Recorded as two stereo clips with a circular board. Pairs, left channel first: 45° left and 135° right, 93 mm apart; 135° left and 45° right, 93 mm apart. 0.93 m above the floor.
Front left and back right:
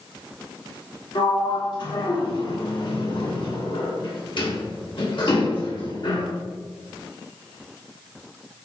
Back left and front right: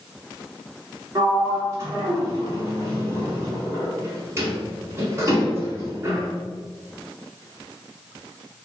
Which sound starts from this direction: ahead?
A sliding door, at 1.1 s.